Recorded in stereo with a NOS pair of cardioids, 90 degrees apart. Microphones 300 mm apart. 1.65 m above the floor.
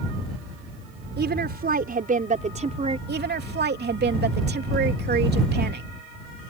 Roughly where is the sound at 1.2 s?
Ahead right.